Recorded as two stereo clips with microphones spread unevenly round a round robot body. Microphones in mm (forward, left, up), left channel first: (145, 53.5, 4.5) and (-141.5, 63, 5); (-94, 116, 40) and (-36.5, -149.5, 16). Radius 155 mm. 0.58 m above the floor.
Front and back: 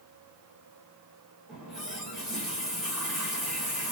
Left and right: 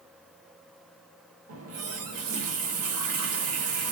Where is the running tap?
95° right, 0.8 m.